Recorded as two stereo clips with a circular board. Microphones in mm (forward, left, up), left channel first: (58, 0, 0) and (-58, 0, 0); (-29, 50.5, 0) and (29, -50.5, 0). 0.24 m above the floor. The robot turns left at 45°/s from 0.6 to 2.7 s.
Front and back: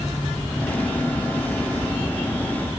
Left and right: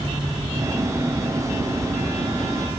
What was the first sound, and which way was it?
Only background noise.